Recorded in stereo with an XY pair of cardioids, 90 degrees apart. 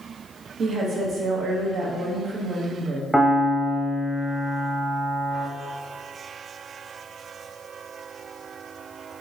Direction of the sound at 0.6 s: 65° right.